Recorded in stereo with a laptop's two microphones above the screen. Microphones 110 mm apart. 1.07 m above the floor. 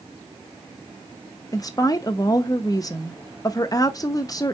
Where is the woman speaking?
30° left (ahead or behind), 0.5 m.